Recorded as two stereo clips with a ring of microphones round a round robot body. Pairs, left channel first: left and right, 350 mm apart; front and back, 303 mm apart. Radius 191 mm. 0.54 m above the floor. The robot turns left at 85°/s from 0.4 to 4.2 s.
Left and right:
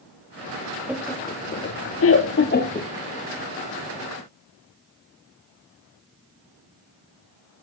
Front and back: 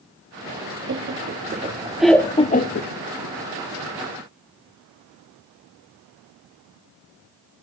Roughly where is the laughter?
Behind.